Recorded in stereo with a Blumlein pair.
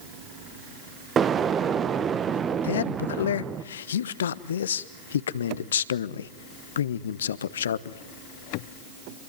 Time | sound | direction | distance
1.2 | an explosion | 25° right | 1.2 m
2.6 | a man speaking | 65° left | 1.1 m